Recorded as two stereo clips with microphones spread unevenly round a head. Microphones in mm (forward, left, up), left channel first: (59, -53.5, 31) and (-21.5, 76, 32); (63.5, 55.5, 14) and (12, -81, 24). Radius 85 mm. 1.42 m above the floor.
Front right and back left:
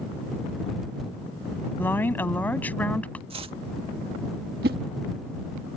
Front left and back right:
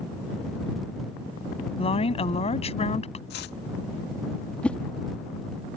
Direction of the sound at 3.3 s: 70° left.